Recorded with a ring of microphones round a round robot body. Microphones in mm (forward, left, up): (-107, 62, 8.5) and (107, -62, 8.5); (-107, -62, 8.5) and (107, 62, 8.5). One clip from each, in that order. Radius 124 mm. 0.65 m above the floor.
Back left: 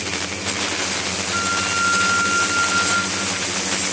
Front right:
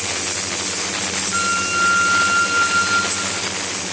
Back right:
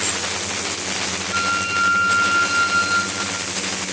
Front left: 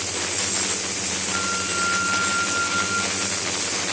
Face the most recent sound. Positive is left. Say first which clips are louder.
# front right 2 dB, back right 6 dB
turn(degrees=-100)